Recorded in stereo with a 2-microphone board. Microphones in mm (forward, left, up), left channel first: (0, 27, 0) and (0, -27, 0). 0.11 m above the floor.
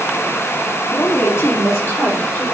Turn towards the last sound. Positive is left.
turn(degrees=45)  # may be behind; listen again after turning